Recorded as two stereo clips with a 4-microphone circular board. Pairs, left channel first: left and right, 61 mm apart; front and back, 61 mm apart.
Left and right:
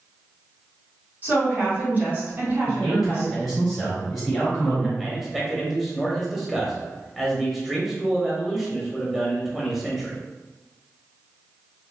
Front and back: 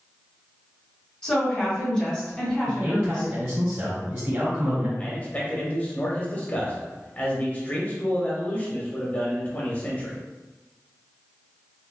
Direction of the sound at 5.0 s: 10° right.